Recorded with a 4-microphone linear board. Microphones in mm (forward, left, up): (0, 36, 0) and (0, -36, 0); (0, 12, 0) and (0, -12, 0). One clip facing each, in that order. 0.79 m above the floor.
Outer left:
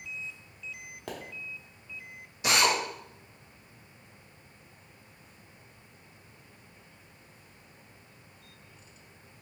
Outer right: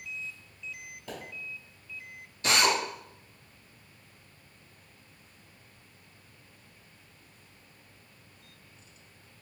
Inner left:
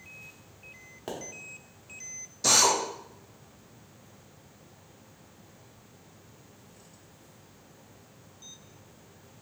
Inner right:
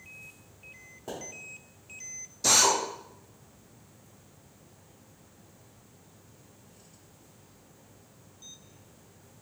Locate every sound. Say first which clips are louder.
1.1 s a pop: outer left 2 dB, inner left 2 dB; 85° left, 1.1 m
2.4 s a drill: even, even; 15° left (ahead or behind), 1.1 m